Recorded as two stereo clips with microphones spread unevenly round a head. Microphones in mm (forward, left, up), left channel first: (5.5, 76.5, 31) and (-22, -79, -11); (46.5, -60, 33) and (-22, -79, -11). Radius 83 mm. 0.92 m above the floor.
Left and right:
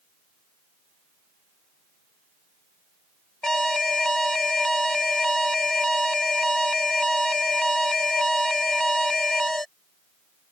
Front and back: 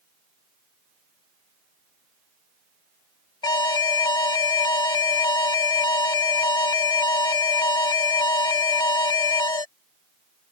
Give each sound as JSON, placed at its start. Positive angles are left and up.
{"t": 3.4, "sound": "an alarm", "azimuth_deg": -5}